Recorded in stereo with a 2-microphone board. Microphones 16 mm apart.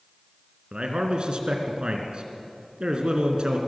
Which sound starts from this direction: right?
A man speaking, at 0.7 s.